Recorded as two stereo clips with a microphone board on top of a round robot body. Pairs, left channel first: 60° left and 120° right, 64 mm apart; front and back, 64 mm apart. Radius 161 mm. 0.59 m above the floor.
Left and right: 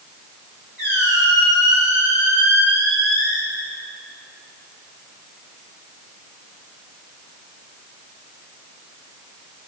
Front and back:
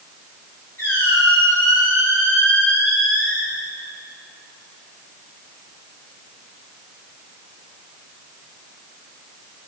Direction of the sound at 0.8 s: 55° right.